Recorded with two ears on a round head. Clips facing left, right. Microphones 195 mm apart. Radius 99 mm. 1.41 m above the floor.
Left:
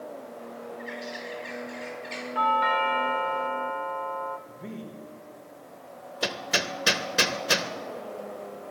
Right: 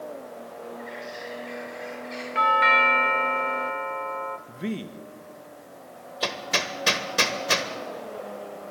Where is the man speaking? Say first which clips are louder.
Right 7 dB; 70° right (ahead or behind), 1.6 m.